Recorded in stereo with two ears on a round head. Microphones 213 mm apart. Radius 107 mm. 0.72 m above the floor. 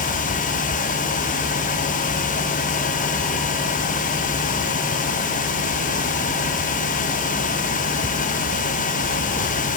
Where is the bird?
No bird in this recording.